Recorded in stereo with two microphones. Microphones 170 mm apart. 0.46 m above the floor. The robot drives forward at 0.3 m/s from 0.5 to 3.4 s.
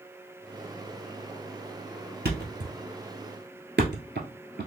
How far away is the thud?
About 1.4 m.